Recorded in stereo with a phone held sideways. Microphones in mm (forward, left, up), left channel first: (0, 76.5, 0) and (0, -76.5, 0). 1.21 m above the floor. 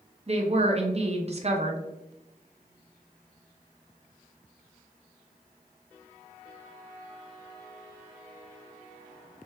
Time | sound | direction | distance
0.3 | a woman speaking | 45° right (ahead or behind) | 0.7 m